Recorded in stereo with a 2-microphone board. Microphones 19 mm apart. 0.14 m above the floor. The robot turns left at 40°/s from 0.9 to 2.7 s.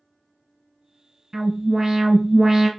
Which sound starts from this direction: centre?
An alarm, at 1.3 s.